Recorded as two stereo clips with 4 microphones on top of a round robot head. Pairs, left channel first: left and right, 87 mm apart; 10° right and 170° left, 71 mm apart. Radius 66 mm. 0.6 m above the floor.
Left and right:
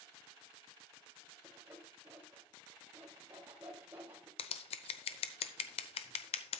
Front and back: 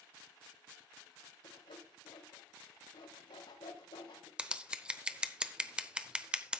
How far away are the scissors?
About 0.8 m.